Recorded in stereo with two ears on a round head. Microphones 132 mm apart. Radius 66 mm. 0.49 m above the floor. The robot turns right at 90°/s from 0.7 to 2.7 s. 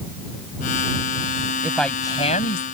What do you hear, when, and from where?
1.6 s a woman speaking: 15° right; by 2.6 s 80° left